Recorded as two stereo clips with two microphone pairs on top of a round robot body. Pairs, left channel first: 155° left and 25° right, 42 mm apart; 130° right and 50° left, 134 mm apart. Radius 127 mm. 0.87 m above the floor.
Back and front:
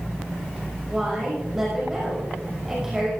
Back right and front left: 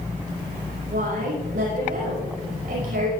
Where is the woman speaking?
55° left, 6 m.